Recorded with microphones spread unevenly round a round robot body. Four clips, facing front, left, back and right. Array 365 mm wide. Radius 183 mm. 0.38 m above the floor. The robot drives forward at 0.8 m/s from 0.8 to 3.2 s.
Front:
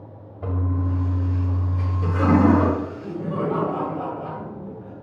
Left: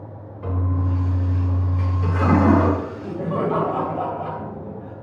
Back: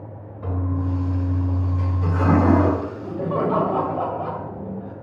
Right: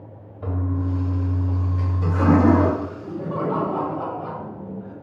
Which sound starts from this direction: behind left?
Laughter, at 2.8 s.